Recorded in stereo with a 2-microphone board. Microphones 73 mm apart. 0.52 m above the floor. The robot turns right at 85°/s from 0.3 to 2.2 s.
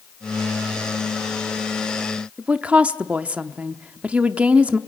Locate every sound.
2.4 s a woman speaking: 15° right (ahead or behind), 0.8 m